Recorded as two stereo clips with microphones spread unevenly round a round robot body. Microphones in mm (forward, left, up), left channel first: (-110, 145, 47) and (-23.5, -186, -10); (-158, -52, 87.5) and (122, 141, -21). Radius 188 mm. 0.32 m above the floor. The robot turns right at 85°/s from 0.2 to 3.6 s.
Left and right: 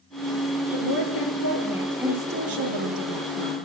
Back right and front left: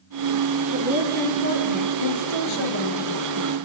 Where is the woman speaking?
90° left, 6.5 m; by 3.6 s 25° right, 6.5 m.